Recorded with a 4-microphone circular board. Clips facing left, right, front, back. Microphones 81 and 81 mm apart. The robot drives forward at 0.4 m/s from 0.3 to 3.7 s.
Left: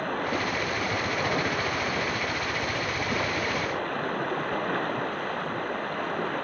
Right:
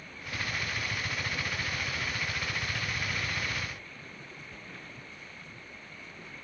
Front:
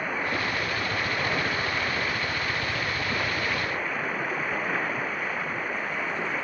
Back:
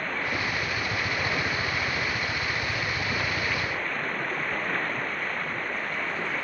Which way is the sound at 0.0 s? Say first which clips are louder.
Left 12 dB, front 1 dB; 80° left.